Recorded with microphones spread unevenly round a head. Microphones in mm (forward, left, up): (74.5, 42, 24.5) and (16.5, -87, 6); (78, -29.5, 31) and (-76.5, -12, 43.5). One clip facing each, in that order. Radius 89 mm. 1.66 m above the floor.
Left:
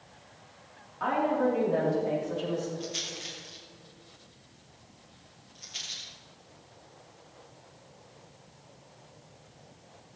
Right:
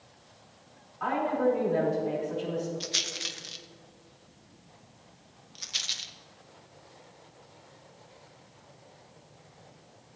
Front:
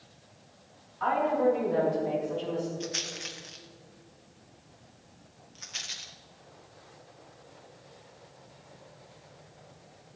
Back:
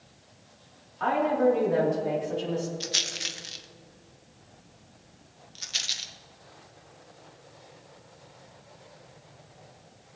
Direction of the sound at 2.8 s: 135° right.